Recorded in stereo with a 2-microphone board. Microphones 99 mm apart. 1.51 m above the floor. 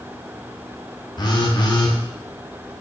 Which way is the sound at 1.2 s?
45° left (ahead or behind).